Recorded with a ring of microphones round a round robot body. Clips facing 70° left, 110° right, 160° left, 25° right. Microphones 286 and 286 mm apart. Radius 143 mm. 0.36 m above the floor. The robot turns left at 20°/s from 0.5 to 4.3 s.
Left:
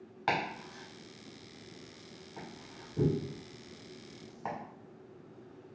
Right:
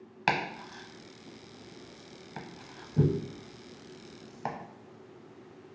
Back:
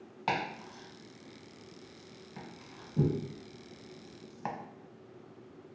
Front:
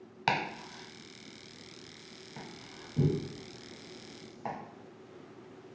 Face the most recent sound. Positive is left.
turn(degrees=-145)